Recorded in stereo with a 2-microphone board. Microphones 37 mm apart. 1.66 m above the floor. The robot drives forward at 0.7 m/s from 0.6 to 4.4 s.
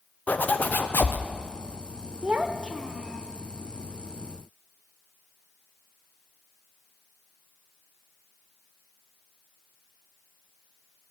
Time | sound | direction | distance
0.3 | a zipper | 45° left (ahead or behind) | 0.6 m
2.2 | a child speaking | 30° right (ahead or behind) | 0.5 m